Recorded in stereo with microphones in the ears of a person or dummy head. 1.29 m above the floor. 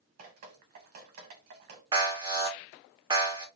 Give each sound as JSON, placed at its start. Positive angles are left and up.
{"t": 0.2, "sound": "dripping", "side_deg": -45, "distance_m": 0.8}
{"t": 1.9, "sound": "an alarm", "side_deg": -20, "distance_m": 0.6}